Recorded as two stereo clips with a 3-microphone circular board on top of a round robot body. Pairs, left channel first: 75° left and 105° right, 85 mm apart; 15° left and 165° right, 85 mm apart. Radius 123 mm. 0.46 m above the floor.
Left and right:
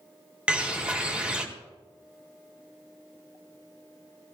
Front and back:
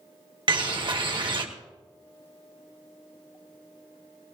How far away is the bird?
About 1.8 m.